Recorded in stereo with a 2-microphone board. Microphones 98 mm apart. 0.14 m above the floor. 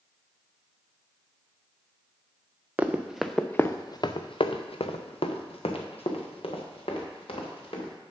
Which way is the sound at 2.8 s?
20° right (ahead or behind).